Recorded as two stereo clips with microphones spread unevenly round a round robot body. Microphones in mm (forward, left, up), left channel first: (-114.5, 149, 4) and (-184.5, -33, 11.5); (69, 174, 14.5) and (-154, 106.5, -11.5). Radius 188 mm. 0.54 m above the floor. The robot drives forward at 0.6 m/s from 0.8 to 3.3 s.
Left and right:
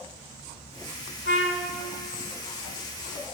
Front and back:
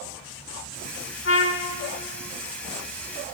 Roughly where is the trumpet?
Ahead left.